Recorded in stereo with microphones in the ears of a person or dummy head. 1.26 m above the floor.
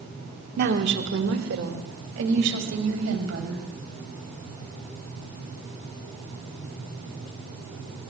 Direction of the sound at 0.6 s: 55° right (ahead or behind).